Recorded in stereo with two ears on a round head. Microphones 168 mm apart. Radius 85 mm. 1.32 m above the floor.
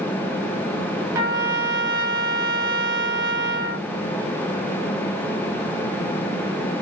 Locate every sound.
1.1 s a trumpet: 20° right (ahead or behind), 1.3 m